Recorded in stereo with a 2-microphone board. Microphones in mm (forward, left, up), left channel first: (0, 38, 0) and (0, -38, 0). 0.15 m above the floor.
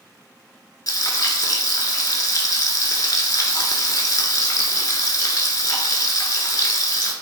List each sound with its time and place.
0.9 s frying: 60° left (ahead or behind), 0.5 m